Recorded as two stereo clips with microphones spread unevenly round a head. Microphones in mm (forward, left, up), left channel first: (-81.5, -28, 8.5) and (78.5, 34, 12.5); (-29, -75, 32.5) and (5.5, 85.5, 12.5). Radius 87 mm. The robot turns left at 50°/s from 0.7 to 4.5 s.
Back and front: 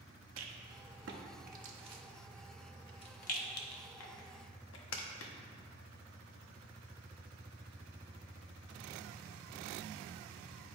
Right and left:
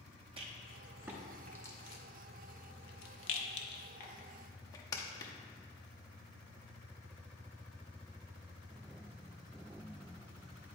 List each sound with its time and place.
0.4 s a rattle: 20° left, 0.8 m; by 5.3 s 170° right, 0.8 m